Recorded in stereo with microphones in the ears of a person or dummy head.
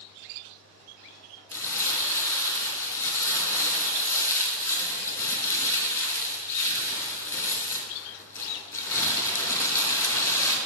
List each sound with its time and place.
1.5 s crumpling: 15° left (ahead or behind), 2.5 m